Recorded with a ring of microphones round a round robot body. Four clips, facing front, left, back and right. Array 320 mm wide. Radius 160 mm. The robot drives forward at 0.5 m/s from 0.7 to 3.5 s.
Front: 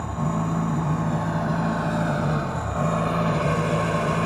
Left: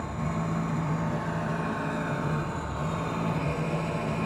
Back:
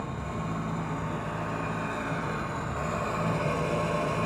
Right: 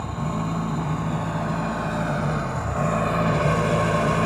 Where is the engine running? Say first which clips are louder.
Right 4 dB, front 8 dB; 20° right, 2.0 m; by 4.3 s 60° right, 1.0 m.